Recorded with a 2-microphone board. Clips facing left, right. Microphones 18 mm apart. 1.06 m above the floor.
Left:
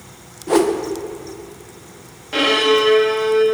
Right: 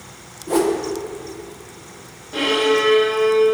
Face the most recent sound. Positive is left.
turn(degrees=70)  # may be behind; listen again after turning